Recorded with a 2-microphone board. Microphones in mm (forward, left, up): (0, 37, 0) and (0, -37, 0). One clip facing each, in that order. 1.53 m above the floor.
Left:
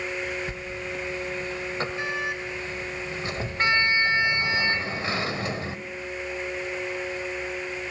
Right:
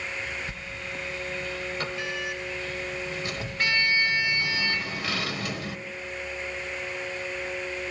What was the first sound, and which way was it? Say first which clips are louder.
A sliding door: left 4 dB; 30° left (ahead or behind).